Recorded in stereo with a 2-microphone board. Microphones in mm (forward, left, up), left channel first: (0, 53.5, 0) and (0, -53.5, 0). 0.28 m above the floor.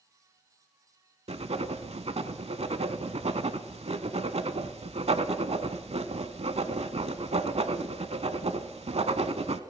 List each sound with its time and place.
1.3 s writing: 75° right (ahead or behind), 0.7 m